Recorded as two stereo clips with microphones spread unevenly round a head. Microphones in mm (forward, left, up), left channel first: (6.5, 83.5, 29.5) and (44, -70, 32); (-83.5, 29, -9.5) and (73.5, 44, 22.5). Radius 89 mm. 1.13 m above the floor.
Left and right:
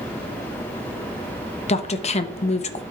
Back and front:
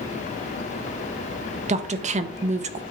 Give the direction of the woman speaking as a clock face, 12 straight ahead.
10 o'clock.